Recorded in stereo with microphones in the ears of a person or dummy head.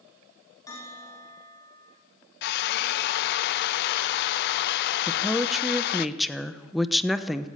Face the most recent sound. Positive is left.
turn(degrees=0)  # may be behind; listen again after turning